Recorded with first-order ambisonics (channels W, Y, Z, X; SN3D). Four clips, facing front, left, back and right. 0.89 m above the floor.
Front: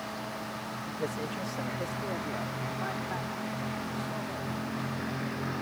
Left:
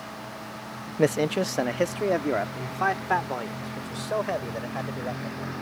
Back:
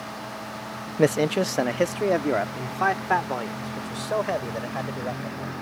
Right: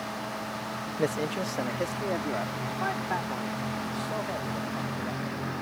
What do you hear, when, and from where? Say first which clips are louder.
1.0 s a man speaking: left 7 dB, back 15 dB; 155° left; by 5.5 s 150° left